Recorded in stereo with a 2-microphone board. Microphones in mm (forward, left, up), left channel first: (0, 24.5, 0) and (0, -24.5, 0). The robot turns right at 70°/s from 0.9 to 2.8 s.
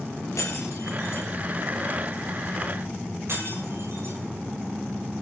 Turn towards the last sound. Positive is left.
turn(degrees=-60)  # may be behind; listen again after turning